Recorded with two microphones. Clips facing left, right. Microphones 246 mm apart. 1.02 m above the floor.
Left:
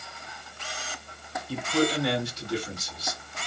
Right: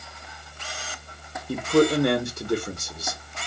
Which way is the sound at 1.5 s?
50° right (ahead or behind).